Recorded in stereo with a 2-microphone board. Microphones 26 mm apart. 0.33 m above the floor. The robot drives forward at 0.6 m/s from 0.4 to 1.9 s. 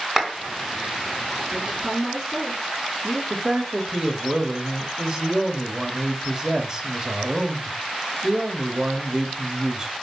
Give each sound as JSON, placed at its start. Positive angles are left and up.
{"t": 0.2, "sound": "a clap", "side_deg": -15, "distance_m": 2.0}
{"t": 1.5, "sound": "a woman speaking", "side_deg": -25, "distance_m": 4.0}
{"t": 3.3, "sound": "a man speaking", "side_deg": -25, "distance_m": 1.2}